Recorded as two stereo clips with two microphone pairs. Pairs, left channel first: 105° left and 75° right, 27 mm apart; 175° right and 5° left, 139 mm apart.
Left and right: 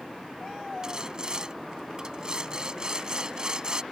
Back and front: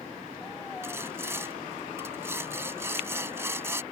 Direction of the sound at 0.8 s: 55° right.